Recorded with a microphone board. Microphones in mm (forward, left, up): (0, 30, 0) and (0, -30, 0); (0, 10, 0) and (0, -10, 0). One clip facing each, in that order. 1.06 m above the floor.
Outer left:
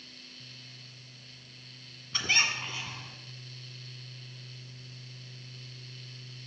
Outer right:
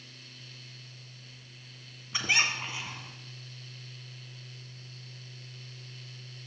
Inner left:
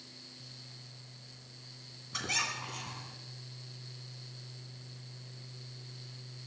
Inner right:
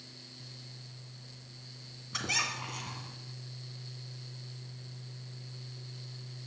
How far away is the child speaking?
No child speaking in this recording.